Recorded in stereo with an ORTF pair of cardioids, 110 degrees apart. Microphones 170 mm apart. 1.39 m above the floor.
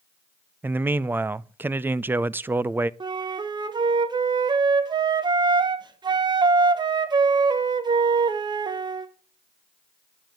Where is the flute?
25° right, 1.1 m.